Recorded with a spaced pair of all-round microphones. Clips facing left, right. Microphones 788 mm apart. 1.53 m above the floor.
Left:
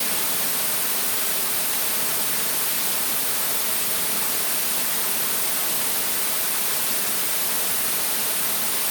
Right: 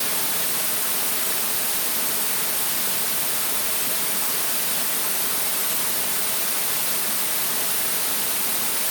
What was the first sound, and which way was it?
Only background noise.